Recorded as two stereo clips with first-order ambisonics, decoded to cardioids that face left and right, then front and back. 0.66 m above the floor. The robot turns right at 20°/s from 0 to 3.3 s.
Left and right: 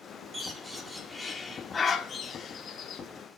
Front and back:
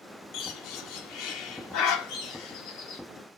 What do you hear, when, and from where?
0.3 s a bird: 15° right, 1.2 m; by 3.0 s 40° left, 1.2 m